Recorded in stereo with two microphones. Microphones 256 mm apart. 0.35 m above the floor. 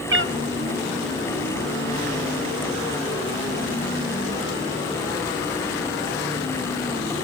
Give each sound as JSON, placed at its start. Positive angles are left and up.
{"t": 0.1, "sound": "a cat meowing", "side_deg": -50, "distance_m": 0.7}